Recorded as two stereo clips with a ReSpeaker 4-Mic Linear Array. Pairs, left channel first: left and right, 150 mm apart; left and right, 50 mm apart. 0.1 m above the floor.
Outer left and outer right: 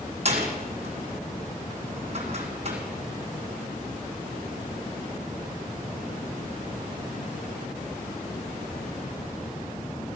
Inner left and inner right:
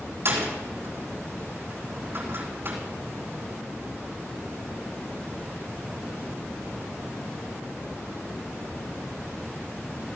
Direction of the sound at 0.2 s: 45° right (ahead or behind).